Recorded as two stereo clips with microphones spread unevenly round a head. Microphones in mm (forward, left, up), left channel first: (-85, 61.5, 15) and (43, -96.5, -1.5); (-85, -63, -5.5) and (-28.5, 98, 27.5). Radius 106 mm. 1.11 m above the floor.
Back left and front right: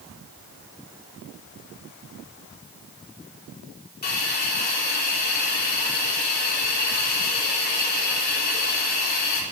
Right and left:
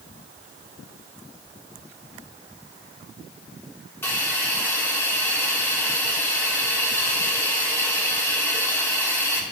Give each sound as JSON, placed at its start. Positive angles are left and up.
{"t": 4.0, "sound": "a hiss", "azimuth_deg": 175, "distance_m": 3.5}